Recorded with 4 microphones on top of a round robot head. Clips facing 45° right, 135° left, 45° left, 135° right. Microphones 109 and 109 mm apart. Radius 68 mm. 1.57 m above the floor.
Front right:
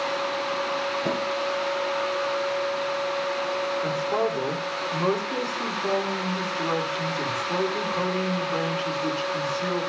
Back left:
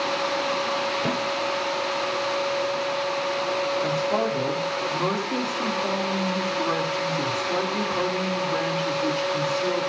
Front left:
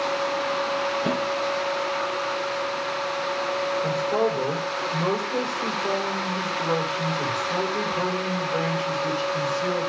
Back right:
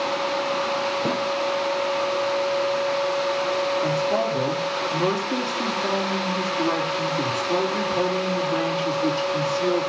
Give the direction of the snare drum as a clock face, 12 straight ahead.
6 o'clock.